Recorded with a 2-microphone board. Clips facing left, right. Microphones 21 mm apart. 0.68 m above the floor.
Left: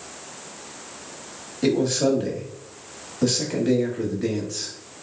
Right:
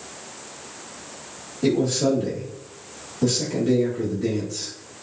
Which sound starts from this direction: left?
A man speaking, at 1.6 s.